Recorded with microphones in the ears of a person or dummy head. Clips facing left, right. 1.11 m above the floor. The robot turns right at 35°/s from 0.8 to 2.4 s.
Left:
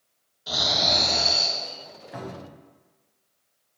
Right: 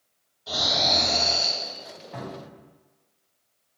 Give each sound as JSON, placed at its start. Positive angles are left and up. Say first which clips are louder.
{"t": 0.5, "sound": "snoring", "louder": "even", "side_deg": 20, "distance_m": 1.6}
{"t": 2.1, "sound": "a cupboard door", "louder": "left 1 dB", "side_deg": 15, "distance_m": 0.9}